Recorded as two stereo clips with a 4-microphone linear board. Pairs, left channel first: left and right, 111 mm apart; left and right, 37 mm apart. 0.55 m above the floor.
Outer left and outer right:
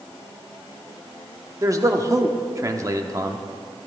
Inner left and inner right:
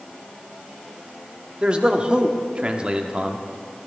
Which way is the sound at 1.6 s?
30° right (ahead or behind).